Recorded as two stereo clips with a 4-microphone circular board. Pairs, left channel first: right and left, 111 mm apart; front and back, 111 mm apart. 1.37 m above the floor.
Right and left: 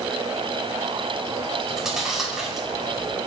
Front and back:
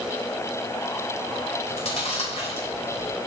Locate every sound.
1.7 s chewing: 5° left, 5 m